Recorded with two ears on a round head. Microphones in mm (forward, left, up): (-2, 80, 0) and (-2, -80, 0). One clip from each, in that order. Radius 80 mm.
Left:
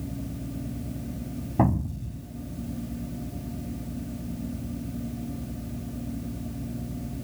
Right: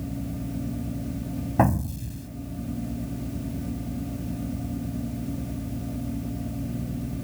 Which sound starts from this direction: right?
An explosion, at 1.6 s.